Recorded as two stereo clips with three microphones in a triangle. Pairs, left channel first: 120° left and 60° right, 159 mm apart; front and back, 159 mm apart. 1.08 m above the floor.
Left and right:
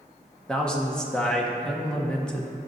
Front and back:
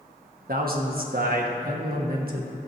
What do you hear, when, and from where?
0.5 s a man speaking: 155° right, 1.4 m